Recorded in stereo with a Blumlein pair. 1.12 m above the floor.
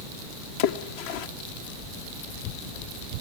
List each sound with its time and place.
0.6 s a splash: 50° left, 1.3 m